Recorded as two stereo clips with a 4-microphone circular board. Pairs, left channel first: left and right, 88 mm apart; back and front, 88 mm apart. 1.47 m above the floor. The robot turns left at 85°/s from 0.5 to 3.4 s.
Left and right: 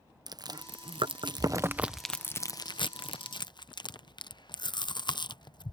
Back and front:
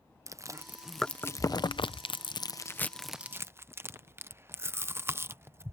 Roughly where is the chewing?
Ahead right.